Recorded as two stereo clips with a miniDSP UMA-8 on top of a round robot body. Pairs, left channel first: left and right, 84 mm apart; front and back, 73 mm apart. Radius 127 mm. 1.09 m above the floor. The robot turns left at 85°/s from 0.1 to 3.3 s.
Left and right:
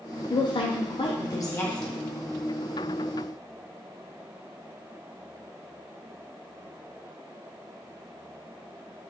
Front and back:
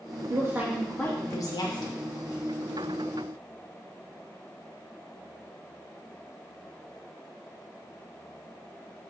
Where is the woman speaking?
135° left, 0.5 m; by 1.9 s 5° right, 0.5 m.